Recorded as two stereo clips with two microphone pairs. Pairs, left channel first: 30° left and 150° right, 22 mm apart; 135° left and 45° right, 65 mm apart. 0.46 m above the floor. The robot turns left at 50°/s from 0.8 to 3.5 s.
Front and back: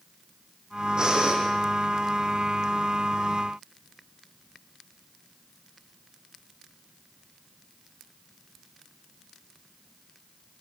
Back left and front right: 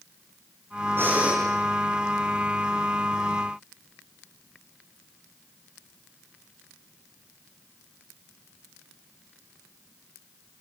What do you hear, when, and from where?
1.0 s breathing: 100° right, 6.5 m; by 1.4 s 120° right, 6.5 m